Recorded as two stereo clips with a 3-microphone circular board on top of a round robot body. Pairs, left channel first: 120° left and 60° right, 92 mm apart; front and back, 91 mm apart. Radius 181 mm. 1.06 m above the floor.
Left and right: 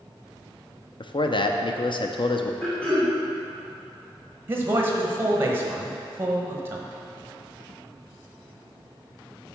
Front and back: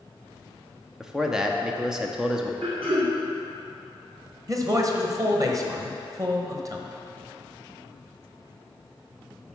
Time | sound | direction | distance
1.0 | a man speaking | 100° left | 0.8 m
2.6 | throat clearing | 160° right | 1.6 m
4.5 | a man speaking | 125° right | 1.1 m